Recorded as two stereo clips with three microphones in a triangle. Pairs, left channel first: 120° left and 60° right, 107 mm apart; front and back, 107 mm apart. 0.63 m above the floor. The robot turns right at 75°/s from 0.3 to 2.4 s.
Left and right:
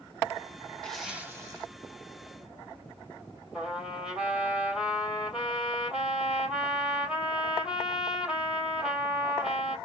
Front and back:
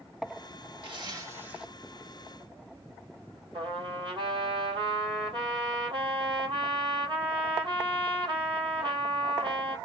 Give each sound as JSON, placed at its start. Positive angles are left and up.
{"t": 0.8, "sound": "a zipper", "azimuth_deg": -160, "distance_m": 1.7}
{"t": 3.5, "sound": "a trumpet", "azimuth_deg": -140, "distance_m": 3.0}